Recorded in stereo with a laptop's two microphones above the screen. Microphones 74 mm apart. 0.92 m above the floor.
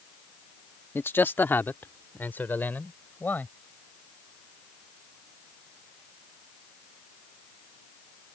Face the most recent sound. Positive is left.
turn(degrees=25)  # may be behind; listen again after turning